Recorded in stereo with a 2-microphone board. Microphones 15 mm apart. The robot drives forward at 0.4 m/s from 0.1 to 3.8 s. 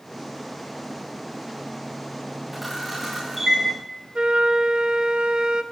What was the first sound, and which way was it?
A camera shutter, 10° right (ahead or behind).